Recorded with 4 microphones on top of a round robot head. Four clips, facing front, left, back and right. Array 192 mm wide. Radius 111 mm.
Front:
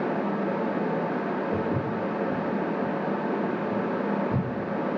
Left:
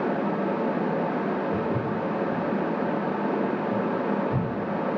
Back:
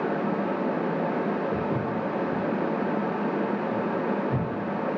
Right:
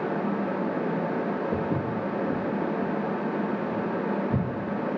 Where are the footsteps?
90° right, 6.5 m; by 4.5 s 100° right, 11 m.